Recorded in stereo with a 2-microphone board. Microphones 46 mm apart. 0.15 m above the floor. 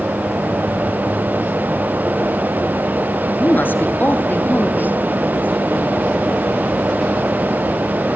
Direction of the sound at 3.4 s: 45° left (ahead or behind).